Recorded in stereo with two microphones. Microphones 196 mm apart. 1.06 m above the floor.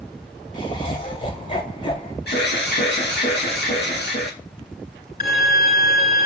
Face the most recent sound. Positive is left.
turn(degrees=50)  # may be behind; listen again after turning